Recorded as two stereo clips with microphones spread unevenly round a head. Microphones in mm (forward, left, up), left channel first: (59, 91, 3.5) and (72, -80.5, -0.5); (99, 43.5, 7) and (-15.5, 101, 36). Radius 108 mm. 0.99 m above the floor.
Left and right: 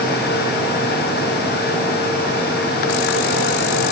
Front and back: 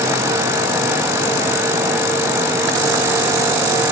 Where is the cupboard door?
No cupboard door in this recording.